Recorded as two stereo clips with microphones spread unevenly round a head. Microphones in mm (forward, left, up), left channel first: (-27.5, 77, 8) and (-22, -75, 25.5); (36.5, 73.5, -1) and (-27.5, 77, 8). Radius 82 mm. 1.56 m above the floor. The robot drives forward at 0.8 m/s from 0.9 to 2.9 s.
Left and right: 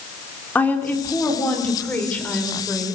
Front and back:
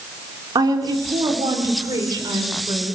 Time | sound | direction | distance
0.6 | a woman speaking | 175° left | 4 m